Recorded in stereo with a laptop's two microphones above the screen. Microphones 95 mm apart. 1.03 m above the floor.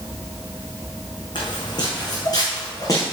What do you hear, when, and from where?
1.4 s footsteps: 50° left (ahead or behind), 4.5 m; by 3.1 s 35° left (ahead or behind), 4.5 m